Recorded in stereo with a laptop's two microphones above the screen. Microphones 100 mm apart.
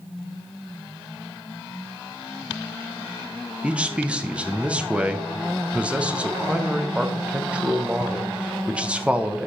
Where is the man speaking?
10° right (ahead or behind), 0.5 m.